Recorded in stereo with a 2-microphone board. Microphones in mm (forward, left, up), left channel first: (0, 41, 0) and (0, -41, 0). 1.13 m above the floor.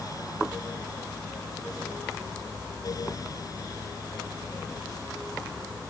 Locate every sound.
Only background noise.